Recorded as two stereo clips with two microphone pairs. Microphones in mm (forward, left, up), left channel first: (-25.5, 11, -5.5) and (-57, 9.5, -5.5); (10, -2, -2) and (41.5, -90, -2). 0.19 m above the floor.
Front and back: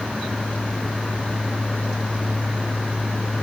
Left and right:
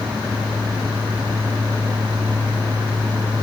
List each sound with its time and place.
Only background noise.